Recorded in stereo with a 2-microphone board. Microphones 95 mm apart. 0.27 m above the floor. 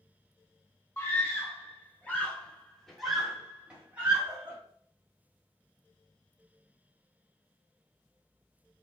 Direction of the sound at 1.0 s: 25° left (ahead or behind).